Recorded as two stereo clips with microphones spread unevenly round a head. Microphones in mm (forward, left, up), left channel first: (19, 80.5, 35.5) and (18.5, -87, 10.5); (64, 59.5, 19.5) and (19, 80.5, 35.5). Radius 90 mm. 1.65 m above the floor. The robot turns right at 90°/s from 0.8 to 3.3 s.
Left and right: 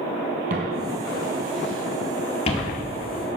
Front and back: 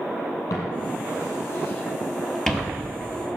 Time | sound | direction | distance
0.5 | footsteps | 55° right | 3 m